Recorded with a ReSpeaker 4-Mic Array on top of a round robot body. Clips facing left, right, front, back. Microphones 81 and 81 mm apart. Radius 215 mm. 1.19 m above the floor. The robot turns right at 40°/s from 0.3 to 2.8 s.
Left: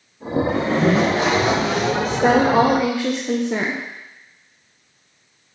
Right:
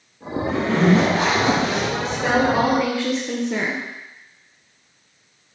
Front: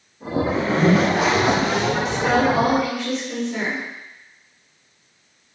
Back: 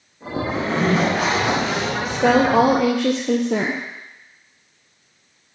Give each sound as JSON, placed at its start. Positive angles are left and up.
{"t": 0.5, "sound": "a zipper", "azimuth_deg": -100, "distance_m": 4.0}
{"t": 2.0, "sound": "a woman speaking", "azimuth_deg": 130, "distance_m": 0.8}